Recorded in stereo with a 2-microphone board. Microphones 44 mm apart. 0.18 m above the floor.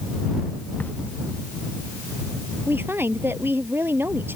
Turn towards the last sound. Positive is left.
turn(degrees=-65)  # may be behind; listen again after turning